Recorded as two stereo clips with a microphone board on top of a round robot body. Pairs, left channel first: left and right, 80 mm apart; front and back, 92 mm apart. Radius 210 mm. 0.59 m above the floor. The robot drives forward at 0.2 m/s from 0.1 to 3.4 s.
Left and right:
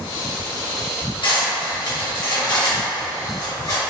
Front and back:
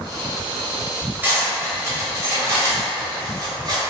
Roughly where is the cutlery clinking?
Left.